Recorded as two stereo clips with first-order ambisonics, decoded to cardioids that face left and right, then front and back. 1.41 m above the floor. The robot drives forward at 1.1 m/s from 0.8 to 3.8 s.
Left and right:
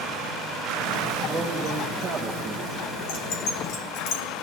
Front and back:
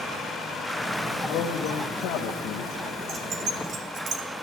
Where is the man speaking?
5° right, 2.5 m; by 2.8 s 20° right, 0.9 m.